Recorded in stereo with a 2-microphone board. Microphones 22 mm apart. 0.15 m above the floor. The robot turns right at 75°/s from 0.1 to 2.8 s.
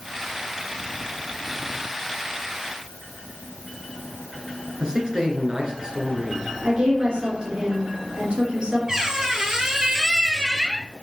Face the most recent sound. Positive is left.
turn(degrees=-25)  # may be behind; listen again after turning